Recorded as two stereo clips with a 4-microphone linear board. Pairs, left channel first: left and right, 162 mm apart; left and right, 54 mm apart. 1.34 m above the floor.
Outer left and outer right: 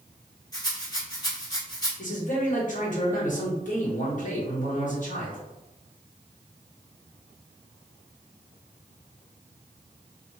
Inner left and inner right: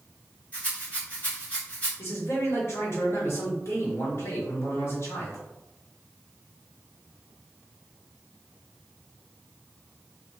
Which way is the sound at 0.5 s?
25° left (ahead or behind).